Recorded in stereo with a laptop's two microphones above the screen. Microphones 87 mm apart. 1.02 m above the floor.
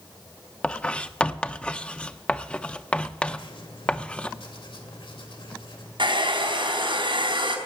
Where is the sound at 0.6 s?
10° left (ahead or behind), 0.5 m.